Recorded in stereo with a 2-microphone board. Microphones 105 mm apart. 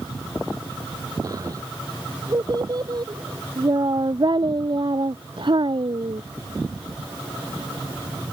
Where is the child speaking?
35° right (ahead or behind); by 6.2 s 60° right (ahead or behind).